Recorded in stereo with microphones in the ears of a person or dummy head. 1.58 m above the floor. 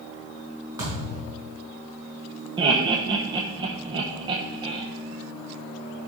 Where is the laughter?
25° right (ahead or behind), 1.0 m.